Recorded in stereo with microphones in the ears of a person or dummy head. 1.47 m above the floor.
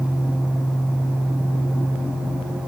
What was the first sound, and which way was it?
Only background noise.